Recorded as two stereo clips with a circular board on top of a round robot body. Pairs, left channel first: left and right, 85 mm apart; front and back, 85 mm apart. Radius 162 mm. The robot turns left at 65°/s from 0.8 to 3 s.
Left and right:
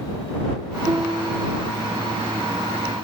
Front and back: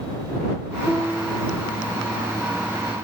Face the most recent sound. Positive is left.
turn(degrees=115)